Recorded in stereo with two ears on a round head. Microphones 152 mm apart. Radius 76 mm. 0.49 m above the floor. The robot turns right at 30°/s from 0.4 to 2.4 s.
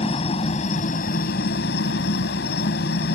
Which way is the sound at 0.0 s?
40° left.